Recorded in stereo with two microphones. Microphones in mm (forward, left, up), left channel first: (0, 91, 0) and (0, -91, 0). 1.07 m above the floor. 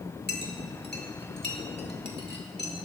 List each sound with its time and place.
0.3 s a clink: 60° left (ahead or behind), 1.7 m